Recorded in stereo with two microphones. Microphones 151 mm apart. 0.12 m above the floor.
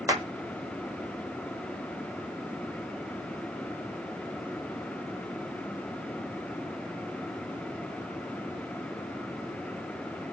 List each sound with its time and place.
0.1 s a clap: 20° right (ahead or behind), 1.1 m